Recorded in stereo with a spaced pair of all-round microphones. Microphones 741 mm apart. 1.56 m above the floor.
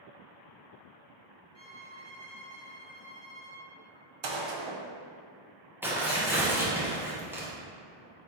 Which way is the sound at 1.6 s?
35° left (ahead or behind).